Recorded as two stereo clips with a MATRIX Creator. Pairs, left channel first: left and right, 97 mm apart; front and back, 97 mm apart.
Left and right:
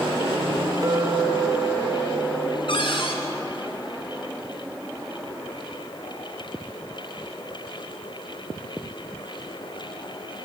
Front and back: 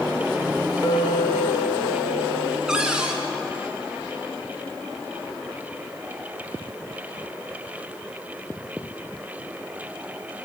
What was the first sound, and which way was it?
A clink, 45° right.